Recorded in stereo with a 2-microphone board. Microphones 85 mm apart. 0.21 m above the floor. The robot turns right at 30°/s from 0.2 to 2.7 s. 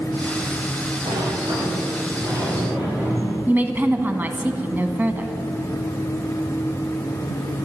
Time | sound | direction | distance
1.1 | a sliding door | 80° right | 8 m
3.5 | a woman speaking | 25° right (ahead or behind) | 1.3 m